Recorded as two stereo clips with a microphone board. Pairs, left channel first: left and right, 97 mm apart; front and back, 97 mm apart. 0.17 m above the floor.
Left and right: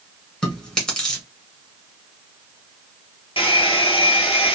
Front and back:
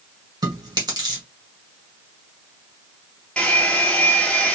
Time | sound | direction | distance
0.4 | chewing | 170° left | 1.7 m
3.4 | a hair dryer | 80° left | 1.2 m